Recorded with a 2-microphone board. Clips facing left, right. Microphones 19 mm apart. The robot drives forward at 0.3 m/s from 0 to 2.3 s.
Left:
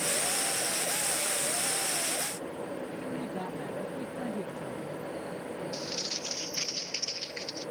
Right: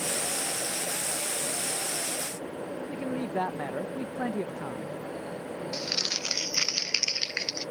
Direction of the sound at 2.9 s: 60° right (ahead or behind).